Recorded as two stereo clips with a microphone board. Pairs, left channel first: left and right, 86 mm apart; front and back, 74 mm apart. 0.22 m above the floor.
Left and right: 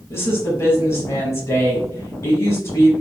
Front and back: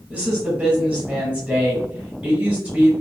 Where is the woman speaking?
120° left, 1.3 m.